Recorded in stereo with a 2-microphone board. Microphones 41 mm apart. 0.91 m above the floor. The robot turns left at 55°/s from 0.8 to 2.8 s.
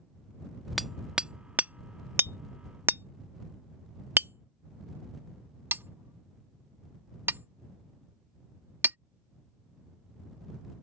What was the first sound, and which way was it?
Hammering, 5° right (ahead or behind).